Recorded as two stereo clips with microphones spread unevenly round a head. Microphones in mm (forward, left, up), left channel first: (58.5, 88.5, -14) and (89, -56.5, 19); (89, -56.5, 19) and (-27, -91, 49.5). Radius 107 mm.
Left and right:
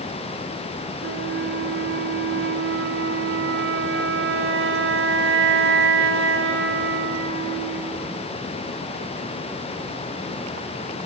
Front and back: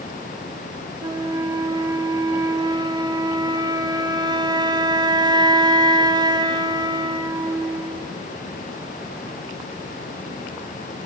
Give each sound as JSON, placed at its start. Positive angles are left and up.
{"t": 1.0, "sound": "a flute", "azimuth_deg": -100, "distance_m": 1.1}